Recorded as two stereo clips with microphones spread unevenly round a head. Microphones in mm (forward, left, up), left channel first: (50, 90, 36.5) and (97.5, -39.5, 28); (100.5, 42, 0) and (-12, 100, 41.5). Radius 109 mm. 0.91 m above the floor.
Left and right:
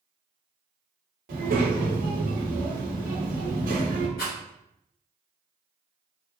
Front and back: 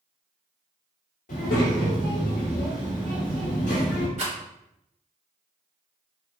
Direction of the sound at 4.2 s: 130° left.